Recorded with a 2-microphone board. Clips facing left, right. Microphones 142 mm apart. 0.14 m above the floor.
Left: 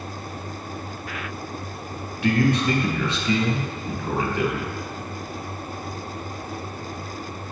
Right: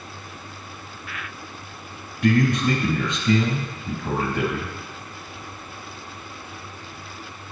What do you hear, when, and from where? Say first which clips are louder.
2.2 s a man speaking: right 1 dB; 45° right (ahead or behind), 2.5 m